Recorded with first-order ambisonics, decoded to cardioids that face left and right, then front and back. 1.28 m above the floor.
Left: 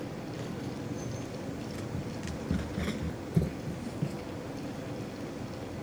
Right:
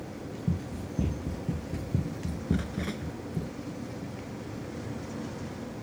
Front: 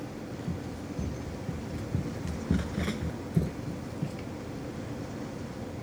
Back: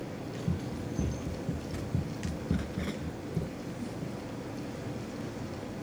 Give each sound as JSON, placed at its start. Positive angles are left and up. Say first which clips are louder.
{"t": 0.5, "sound": "running footsteps", "louder": "right 1 dB, back 1 dB", "azimuth_deg": -105}